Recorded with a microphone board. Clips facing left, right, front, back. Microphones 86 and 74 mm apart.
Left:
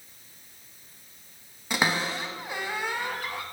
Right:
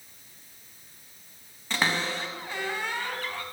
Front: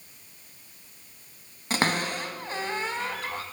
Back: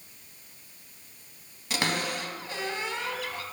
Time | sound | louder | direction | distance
1.7 | a cupboard door | left 1 dB, front 3 dB | 15° left | 0.7 m